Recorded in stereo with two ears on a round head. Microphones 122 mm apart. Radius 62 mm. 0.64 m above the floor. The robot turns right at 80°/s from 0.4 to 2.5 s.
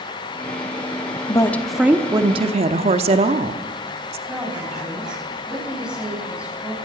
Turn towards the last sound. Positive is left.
turn(degrees=-5)  # may be behind; listen again after turning